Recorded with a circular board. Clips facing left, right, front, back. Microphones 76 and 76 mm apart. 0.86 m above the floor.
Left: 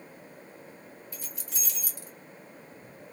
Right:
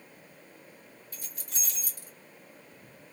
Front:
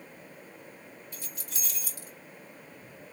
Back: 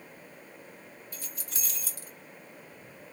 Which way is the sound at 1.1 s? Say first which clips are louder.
Left 3 dB, even; 125° right.